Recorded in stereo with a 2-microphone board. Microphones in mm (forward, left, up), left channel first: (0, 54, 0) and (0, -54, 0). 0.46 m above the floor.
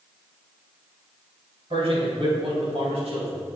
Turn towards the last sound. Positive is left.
turn(degrees=-75)  # may be behind; listen again after turning